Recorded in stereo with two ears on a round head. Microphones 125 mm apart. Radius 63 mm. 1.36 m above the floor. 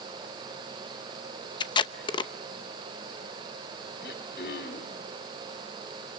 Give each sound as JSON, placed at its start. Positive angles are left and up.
{"t": 1.6, "sound": "tape being pulled", "side_deg": 35, "distance_m": 0.8}
{"t": 4.0, "sound": "throat clearing", "side_deg": 75, "distance_m": 2.5}